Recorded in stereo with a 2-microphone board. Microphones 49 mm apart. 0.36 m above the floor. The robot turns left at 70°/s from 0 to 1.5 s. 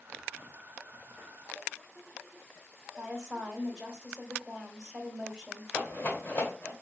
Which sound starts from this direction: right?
A woman speaking, at 3.0 s.